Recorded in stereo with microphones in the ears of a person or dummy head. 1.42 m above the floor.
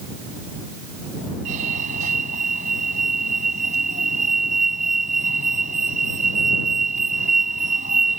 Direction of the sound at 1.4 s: 40° right (ahead or behind).